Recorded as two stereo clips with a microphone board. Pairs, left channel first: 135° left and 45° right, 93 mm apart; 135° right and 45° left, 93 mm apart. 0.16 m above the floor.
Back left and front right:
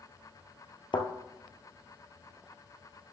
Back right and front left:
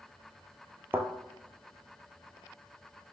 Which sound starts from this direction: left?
A thud, at 0.9 s.